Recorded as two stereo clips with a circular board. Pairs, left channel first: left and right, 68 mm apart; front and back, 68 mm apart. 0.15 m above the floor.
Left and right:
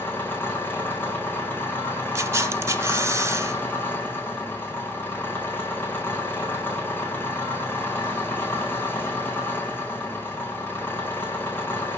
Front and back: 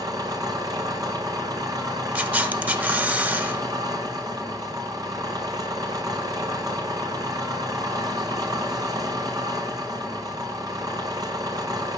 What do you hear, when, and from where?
0.0 s an engine running: 150° left, 2.5 m
2.1 s a camera shutter: 125° right, 1.2 m